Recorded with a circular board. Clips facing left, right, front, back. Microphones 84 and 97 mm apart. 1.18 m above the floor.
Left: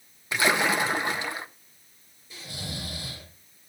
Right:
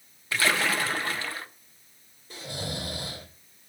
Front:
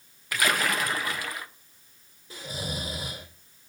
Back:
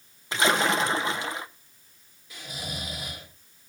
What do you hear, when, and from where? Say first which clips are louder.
0.3 s a splash: left 2 dB, back 3 dB; 140° left, 0.7 m
2.3 s snoring: right 4 dB, front 3 dB; 55° right, 3.5 m